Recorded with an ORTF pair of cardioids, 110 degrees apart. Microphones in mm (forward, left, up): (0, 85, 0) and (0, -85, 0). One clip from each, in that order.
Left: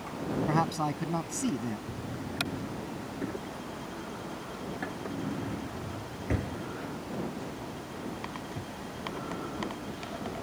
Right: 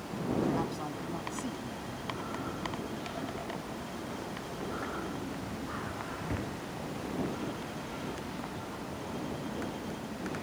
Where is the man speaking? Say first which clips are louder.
Left 5 dB; 55° left.